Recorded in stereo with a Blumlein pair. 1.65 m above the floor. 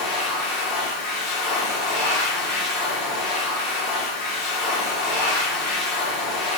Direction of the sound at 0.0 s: 30° left.